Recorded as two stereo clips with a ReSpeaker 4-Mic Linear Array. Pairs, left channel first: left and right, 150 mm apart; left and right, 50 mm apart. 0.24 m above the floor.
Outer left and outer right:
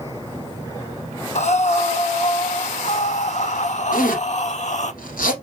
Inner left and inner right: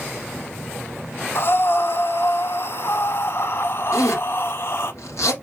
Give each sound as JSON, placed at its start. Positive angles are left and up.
{"t": 1.4, "sound": "breathing", "side_deg": 50, "distance_m": 0.6}
{"t": 3.9, "sound": "a zipper", "side_deg": 70, "distance_m": 2.0}